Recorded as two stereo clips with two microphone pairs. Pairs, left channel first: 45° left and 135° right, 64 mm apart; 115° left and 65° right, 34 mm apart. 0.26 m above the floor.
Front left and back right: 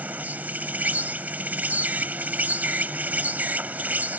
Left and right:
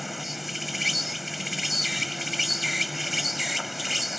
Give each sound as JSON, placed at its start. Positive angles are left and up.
{"t": 0.0, "sound": "an insect", "azimuth_deg": -145}